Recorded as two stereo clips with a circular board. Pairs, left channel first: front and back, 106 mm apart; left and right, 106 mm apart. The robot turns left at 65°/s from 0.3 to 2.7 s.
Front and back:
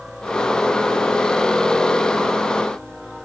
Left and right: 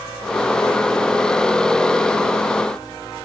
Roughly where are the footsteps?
No footsteps in this recording.